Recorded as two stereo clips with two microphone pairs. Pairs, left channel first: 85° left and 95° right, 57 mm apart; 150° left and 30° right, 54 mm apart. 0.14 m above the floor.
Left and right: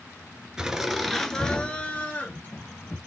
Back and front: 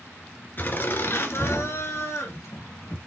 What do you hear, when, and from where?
0.6 s laughter: 175° right, 2 m; by 3.0 s 125° left, 3 m